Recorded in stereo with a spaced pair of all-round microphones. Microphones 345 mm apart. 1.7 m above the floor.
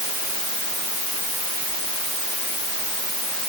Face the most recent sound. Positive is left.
No sound to turn to.